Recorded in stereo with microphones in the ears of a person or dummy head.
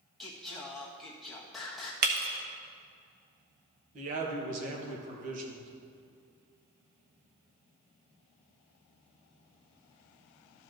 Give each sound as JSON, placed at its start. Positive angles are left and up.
{"t": 0.2, "sound": "singing", "side_deg": 5, "distance_m": 1.5}
{"t": 2.0, "sound": "breaking glass", "side_deg": -50, "distance_m": 0.9}
{"t": 3.9, "sound": "a man speaking", "side_deg": -40, "distance_m": 2.0}